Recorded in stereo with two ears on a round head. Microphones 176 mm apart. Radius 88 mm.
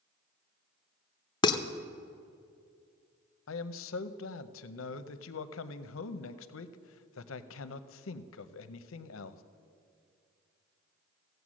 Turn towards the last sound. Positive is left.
turn(degrees=75)  # may be behind; listen again after turning